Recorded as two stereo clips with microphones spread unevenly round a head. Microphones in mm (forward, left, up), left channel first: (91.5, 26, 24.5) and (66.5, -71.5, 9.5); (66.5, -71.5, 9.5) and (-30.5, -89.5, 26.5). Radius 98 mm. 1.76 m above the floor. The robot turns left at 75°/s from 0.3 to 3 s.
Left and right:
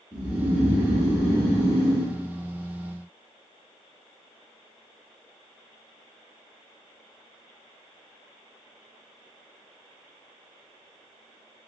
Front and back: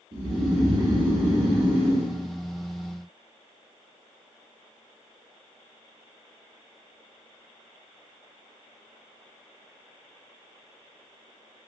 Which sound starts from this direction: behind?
Snoring, at 0.1 s.